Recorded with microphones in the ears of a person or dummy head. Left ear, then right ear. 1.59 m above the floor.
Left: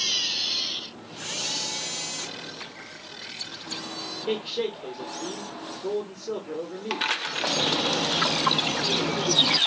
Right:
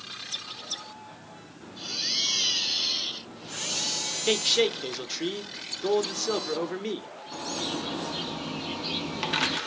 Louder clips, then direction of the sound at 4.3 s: Right 6 dB; 55° right (ahead or behind).